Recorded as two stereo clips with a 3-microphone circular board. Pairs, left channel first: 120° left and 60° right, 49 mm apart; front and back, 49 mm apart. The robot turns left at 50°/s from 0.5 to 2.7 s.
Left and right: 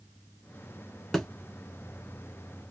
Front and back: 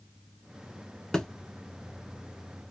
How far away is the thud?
About 0.6 m.